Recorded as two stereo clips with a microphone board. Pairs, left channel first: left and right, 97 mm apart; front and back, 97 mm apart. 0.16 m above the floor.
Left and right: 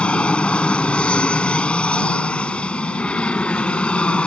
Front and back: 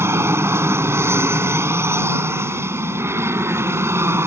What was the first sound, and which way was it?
An aircraft, 155° left.